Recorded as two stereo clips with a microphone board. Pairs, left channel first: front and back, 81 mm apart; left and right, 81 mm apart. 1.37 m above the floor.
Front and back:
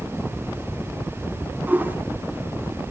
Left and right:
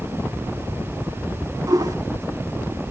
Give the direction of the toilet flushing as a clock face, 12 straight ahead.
4 o'clock.